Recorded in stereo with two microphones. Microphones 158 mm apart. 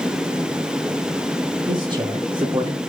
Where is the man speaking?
30° right (ahead or behind), 0.8 m.